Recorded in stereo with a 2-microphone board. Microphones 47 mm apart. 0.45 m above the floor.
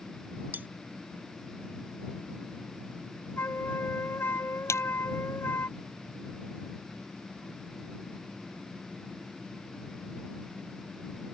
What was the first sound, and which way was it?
Cutlery clinking, 40° right (ahead or behind).